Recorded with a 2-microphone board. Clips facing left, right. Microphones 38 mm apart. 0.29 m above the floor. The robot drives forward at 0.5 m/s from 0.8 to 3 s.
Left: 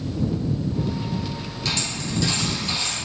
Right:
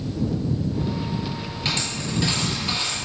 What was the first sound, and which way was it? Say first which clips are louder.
A dropped coin: even; 35° right (ahead or behind).